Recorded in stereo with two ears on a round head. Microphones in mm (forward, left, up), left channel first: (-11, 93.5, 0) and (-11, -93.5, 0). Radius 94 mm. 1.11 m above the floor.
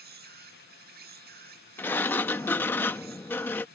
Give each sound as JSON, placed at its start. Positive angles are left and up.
{"t": 0.0, "sound": "an insect", "side_deg": -50}
{"t": 1.8, "sound": "a sliding door", "side_deg": 10}